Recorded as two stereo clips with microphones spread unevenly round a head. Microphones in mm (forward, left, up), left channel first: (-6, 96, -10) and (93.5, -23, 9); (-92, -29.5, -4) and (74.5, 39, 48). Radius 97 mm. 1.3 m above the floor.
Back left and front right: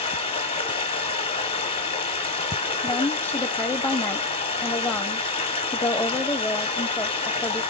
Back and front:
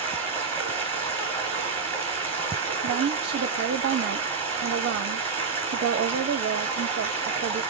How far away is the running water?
About 1.4 m.